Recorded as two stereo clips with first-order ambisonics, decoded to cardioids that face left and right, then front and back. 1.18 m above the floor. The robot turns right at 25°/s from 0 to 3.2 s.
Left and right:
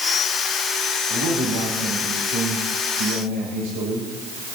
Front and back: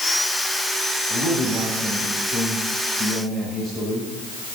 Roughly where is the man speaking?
Behind right.